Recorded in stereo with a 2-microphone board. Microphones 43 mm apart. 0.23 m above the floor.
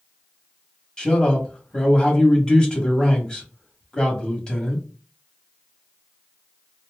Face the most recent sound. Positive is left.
turn(degrees=15)  # may be behind; listen again after turning